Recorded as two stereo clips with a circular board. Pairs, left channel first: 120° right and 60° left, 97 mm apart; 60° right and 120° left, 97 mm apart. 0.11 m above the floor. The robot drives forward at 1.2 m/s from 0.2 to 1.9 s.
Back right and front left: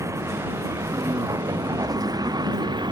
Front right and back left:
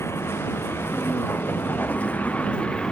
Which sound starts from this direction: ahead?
A vehicle, at 0.0 s.